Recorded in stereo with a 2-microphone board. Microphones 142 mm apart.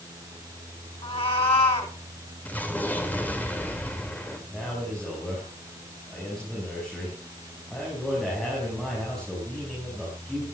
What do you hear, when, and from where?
1.0 s a cat meowing: 45° left (ahead or behind), 2 m
2.5 s an explosion: 10° left (ahead or behind), 2.5 m
4.5 s a man speaking: 5° left (ahead or behind), 6 m